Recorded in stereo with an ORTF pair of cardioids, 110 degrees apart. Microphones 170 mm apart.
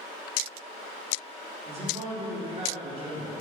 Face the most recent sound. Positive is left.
turn(degrees=-35)